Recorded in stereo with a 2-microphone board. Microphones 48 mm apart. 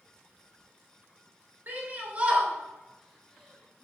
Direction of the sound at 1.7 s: 40° right (ahead or behind).